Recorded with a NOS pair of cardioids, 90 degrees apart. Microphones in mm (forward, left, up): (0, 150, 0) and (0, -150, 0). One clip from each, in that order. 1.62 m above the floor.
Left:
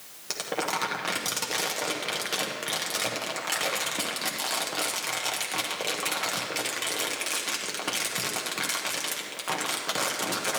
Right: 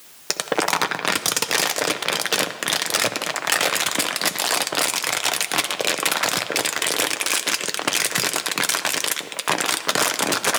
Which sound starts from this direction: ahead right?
Crumpling, at 0.3 s.